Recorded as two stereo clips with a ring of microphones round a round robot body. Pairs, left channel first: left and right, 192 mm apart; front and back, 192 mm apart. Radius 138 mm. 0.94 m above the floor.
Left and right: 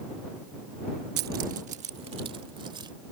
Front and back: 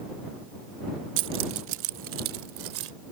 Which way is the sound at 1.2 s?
140° right.